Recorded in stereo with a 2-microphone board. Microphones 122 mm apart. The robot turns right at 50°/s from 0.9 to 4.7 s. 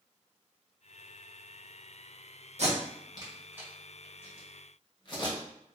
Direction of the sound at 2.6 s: 60° right (ahead or behind).